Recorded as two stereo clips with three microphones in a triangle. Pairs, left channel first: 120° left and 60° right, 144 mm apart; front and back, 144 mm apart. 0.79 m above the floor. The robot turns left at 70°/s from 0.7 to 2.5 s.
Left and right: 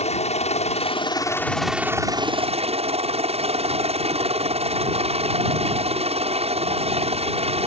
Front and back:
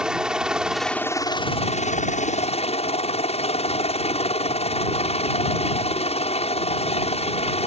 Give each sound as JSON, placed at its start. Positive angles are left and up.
{"t": 0.0, "sound": "a helicopter", "azimuth_deg": 95}